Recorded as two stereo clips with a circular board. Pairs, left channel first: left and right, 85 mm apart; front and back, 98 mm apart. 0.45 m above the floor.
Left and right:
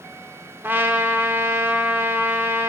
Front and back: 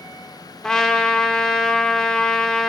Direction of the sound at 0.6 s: 75° right.